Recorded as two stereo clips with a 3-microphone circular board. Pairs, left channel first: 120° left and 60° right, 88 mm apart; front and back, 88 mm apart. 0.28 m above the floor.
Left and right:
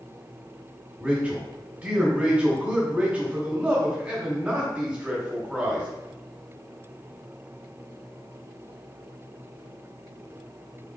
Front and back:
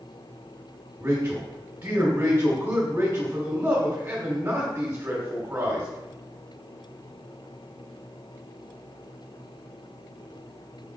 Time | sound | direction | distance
1.0 | a man speaking | 120° right | 1.5 m